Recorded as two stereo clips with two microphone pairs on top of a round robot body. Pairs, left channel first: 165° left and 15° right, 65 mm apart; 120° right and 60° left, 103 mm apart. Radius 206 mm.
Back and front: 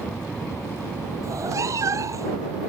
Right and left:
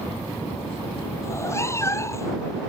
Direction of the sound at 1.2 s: 55° right.